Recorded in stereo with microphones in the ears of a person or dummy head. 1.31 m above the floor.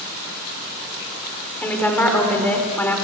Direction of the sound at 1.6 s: 10° left (ahead or behind).